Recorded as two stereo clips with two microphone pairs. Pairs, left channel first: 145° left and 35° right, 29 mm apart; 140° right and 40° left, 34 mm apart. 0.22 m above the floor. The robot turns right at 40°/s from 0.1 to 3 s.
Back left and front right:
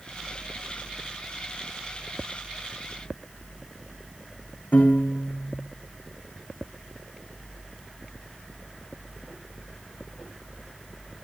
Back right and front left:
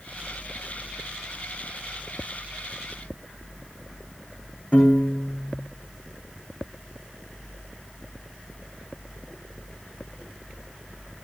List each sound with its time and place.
4.7 s a piano: 170° left, 7.5 m